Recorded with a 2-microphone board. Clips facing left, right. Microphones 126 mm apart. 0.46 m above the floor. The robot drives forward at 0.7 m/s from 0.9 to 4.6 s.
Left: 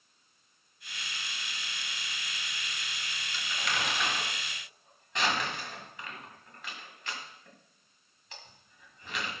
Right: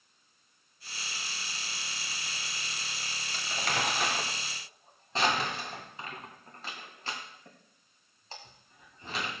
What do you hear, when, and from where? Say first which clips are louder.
3.3 s crumpling: right 2 dB; 50° right (ahead or behind), 1.5 m; by 9.3 s 35° right (ahead or behind), 2 m